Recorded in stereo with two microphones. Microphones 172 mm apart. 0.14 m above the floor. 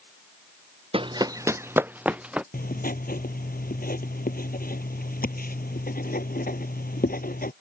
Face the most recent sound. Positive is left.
turn(degrees=55)  # may be behind; listen again after turning